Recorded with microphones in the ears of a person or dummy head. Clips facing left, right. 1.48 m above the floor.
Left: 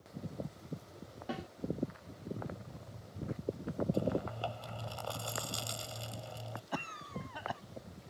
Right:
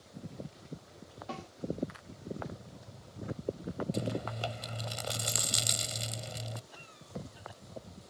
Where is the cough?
70° left (ahead or behind).